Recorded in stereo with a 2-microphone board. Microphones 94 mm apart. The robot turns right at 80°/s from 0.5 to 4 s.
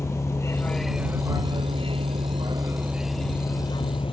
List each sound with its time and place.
0.0 s a vehicle: 150° left; by 4.1 s 70° left